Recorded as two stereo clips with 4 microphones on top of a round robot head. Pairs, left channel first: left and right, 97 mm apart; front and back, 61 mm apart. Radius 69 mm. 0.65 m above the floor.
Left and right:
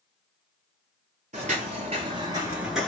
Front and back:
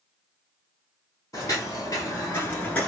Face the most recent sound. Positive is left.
turn(degrees=20)